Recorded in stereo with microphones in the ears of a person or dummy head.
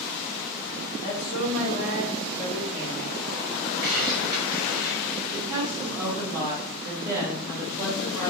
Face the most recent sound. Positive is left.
turn(degrees=-20)  # may be behind; listen again after turning